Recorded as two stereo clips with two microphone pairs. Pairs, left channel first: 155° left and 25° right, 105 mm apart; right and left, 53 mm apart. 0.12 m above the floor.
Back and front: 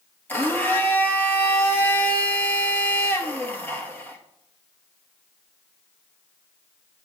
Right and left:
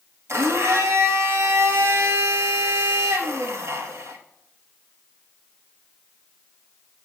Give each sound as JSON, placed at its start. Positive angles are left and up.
{"t": 0.3, "sound": "a blender", "azimuth_deg": 80, "distance_m": 1.2}